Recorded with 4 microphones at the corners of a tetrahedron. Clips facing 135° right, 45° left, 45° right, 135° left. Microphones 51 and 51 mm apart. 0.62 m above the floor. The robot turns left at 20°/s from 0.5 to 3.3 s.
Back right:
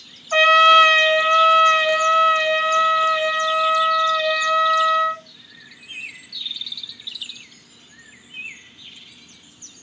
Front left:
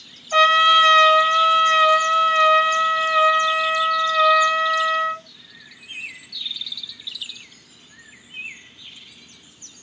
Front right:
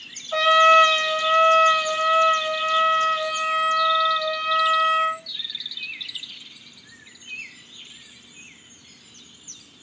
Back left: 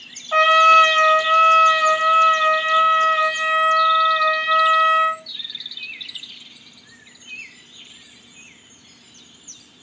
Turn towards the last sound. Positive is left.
turn(degrees=110)